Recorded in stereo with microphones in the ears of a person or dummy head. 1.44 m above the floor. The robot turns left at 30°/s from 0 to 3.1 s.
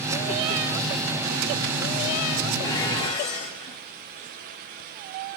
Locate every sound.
2.6 s dishes clattering: 15° left (ahead or behind), 3 m; by 3.8 s 30° left (ahead or behind), 3 m